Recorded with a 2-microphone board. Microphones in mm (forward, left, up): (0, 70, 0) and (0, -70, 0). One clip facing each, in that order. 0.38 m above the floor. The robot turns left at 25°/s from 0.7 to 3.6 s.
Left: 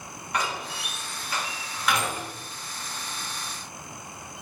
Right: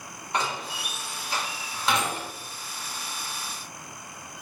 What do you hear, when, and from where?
0.3 s a door slam: 30° right (ahead or behind), 1.0 m; by 2.3 s 25° right (ahead or behind), 1.0 m